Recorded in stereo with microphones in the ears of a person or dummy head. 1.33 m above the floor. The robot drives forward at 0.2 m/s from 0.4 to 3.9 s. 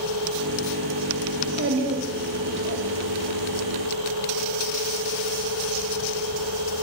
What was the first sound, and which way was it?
A child speaking, 80° right.